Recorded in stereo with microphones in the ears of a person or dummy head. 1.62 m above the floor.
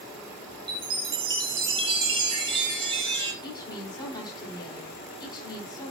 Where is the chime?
35° right (ahead or behind), 6.5 m.